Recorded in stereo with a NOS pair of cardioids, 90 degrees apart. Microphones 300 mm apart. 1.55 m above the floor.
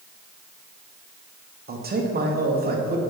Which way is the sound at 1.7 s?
30° right.